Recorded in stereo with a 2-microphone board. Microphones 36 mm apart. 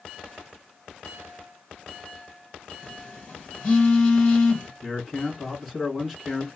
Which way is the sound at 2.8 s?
40° left (ahead or behind).